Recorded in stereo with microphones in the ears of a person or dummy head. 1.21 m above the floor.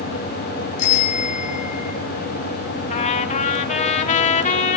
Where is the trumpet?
35° left (ahead or behind), 1.3 m.